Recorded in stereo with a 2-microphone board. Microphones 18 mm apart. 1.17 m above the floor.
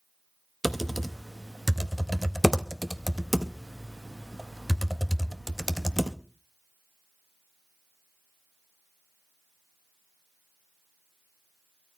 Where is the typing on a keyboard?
5° right (ahead or behind), 0.8 m.